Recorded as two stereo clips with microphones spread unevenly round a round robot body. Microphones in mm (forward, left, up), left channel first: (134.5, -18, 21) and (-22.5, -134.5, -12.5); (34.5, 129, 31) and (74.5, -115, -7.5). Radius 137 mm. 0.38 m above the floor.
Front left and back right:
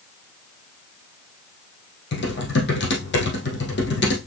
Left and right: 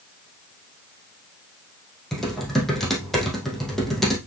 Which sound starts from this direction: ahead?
Typing on a keyboard, at 2.1 s.